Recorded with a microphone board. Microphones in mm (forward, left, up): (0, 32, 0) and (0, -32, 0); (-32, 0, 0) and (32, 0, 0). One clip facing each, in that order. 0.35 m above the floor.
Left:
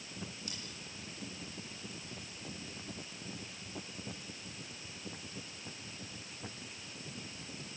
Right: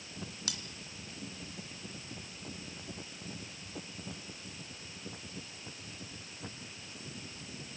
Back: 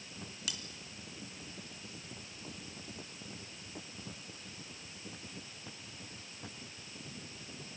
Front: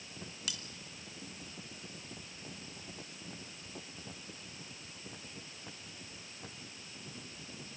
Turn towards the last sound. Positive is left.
turn(degrees=-90)